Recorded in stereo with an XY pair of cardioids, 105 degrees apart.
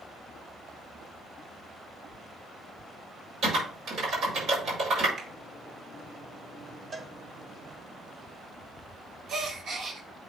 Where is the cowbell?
35° right, 0.9 m.